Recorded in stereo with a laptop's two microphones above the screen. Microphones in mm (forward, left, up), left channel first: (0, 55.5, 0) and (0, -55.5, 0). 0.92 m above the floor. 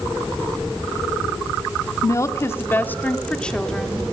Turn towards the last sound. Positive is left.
turn(degrees=0)  # may be behind; listen again after turning